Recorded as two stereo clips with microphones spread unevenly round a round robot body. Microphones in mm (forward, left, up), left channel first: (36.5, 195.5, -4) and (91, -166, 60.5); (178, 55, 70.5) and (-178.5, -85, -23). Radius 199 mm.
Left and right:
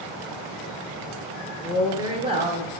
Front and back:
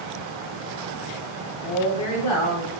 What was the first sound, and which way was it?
A woman speaking, 35° left.